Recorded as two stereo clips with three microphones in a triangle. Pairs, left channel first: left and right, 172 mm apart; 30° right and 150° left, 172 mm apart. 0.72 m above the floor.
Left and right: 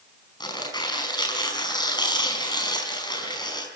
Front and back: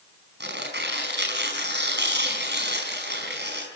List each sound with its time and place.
0.4 s tearing paper: 155° left, 5 m